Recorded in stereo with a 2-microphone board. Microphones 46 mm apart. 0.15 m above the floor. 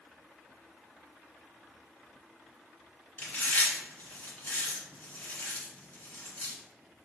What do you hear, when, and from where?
3.2 s chewing: 35° left (ahead or behind), 1.7 m